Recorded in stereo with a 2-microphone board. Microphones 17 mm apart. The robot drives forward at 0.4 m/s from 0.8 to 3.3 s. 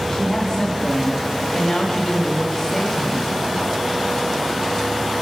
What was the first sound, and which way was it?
A woman speaking, 15° left (ahead or behind).